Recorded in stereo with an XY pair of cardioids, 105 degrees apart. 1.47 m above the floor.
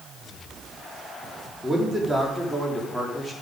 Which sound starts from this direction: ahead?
A man speaking, at 1.6 s.